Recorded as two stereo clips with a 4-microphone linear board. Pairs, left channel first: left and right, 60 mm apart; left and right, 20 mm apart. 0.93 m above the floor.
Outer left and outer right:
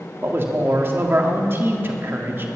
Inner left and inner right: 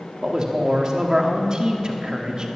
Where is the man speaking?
35° right (ahead or behind), 1.7 m.